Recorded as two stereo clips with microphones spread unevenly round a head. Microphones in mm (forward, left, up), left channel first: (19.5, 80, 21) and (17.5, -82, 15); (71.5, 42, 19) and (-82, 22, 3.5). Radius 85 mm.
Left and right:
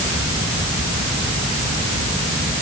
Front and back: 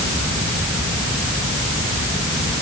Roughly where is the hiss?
I don't hear a hiss.